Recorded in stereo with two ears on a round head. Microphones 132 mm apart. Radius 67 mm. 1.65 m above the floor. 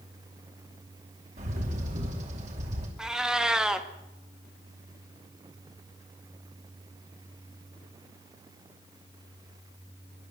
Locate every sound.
1.4 s a bird: 50° right (ahead or behind), 4.5 m
3.0 s a cat meowing: 5° right (ahead or behind), 1.2 m